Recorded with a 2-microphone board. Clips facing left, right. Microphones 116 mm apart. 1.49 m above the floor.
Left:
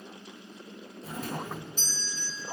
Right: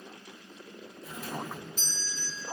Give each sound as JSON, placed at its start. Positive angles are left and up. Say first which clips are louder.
{"t": 1.0, "sound": "a doorbell", "louder": "left 2 dB", "side_deg": 35, "distance_m": 2.5}